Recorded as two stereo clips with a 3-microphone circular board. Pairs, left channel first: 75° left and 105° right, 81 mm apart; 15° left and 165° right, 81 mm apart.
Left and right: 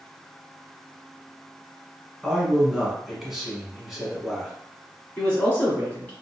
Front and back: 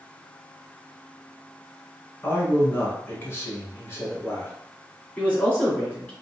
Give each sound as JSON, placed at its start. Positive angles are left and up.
{"t": 2.2, "sound": "a man speaking", "azimuth_deg": -20, "distance_m": 1.2}
{"t": 5.2, "sound": "a man speaking", "azimuth_deg": 50, "distance_m": 1.4}